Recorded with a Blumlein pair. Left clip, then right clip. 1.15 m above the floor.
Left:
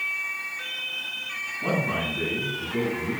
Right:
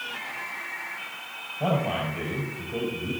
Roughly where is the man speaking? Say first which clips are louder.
Right 1 dB; ahead right.